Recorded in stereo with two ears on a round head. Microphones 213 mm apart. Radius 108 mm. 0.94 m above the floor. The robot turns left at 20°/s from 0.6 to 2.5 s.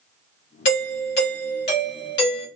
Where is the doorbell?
65° left, 1.5 m; by 2.5 s 25° left, 1.5 m.